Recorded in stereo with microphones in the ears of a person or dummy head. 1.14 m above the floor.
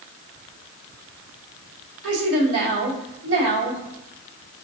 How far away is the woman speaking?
About 1.4 m.